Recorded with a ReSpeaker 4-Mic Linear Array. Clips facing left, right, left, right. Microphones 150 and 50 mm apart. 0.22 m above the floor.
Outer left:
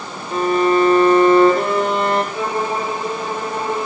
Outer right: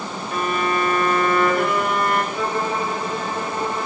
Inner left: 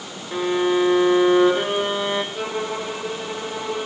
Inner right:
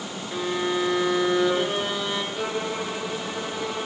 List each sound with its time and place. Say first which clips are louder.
0.3 s a violin: outer left 8 dB, inner left 6 dB; 25° left (ahead or behind), 2.5 m
2.3 s a violin: outer left 2 dB, inner left 2 dB; 20° left (ahead or behind), 7 m